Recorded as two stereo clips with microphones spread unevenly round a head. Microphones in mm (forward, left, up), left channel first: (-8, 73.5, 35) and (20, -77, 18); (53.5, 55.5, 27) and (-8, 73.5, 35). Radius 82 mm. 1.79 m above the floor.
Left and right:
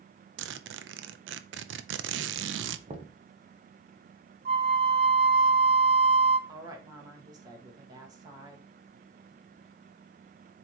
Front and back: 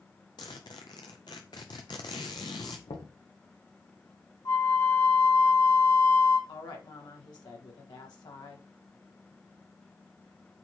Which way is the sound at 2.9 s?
25° right.